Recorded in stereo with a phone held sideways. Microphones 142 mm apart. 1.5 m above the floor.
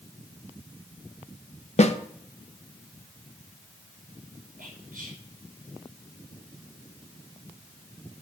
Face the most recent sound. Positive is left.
turn(degrees=-75)  # may be behind; listen again after turning